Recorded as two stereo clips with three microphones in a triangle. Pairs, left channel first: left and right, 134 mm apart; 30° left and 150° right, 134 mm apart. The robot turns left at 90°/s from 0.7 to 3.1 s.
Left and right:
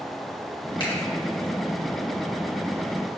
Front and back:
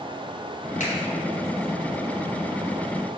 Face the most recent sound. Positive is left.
turn(degrees=-165)